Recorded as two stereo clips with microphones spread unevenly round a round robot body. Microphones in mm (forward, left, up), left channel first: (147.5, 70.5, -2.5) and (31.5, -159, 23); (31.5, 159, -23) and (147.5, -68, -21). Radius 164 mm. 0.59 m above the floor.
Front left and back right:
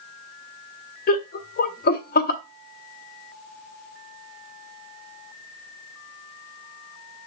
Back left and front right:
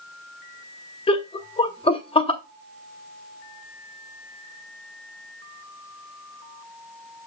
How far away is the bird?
I don't hear a bird.